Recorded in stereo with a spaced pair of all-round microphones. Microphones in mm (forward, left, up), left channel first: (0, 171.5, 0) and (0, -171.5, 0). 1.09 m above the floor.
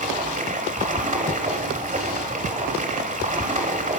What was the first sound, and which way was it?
Running water, 20° right (ahead or behind).